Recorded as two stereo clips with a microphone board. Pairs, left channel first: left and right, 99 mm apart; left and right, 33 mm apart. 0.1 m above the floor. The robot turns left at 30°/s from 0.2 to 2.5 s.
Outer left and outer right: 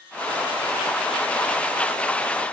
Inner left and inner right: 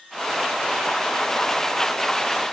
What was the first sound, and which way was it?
Only background noise.